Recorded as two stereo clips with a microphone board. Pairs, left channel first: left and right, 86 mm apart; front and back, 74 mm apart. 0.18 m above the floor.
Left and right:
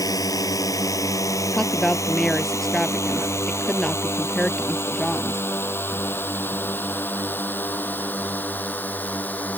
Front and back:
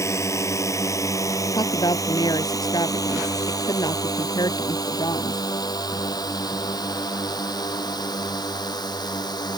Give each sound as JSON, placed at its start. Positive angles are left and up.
{"t": 0.0, "sound": "a drone", "azimuth_deg": 45}
{"t": 1.5, "sound": "a woman speaking", "azimuth_deg": 5}